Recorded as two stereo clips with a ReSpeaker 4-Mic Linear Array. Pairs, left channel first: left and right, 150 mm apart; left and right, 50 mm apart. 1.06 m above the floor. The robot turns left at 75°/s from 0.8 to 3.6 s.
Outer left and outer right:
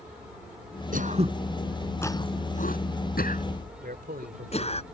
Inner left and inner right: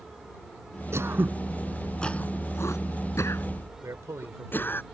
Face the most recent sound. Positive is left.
turn(degrees=-90)